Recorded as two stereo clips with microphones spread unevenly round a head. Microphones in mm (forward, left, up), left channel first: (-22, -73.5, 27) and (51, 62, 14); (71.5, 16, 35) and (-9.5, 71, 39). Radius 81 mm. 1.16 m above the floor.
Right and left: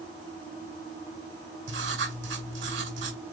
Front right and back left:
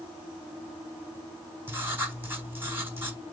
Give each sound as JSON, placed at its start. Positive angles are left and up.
{"t": 1.7, "sound": "writing", "azimuth_deg": 80, "distance_m": 4.0}